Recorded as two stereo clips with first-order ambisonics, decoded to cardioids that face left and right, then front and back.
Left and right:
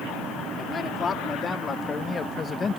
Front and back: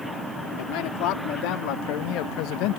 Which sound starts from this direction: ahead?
A man speaking, at 0.6 s.